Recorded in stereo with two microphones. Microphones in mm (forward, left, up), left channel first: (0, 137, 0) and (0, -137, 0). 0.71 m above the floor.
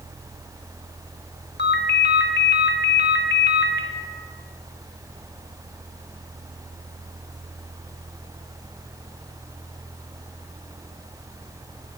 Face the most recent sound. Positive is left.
turn(degrees=40)  # may be behind; listen again after turning